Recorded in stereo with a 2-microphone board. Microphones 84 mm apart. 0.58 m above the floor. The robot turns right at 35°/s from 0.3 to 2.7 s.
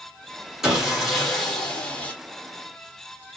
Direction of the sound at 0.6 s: 5° right (ahead or behind).